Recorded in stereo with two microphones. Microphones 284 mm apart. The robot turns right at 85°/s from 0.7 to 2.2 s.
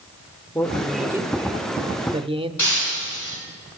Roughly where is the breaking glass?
Left.